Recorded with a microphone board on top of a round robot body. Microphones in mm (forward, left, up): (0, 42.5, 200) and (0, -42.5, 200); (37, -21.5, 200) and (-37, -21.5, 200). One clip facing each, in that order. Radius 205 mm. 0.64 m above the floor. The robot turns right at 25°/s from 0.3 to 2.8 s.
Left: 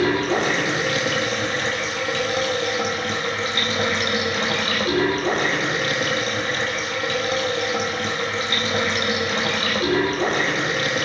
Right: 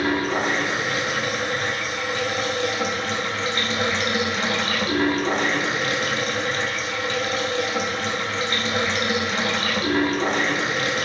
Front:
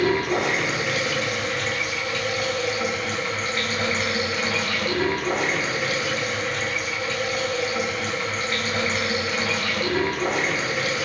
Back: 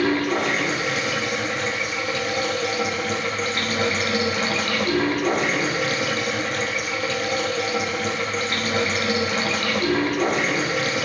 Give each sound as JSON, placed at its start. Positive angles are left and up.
{"t": 0.0, "sound": "running water", "azimuth_deg": 75, "distance_m": 2.5}